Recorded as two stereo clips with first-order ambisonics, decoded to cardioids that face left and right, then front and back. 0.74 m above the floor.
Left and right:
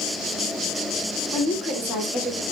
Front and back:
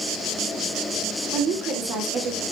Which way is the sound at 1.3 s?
140° left.